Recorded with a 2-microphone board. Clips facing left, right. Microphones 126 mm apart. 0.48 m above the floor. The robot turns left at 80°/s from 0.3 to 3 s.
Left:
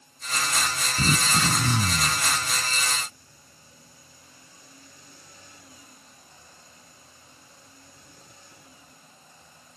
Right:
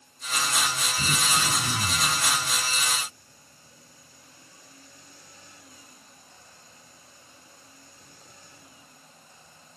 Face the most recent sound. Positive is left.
turn(degrees=-50)